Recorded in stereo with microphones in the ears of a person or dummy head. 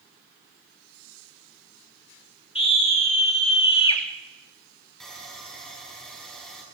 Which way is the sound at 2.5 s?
30° left (ahead or behind).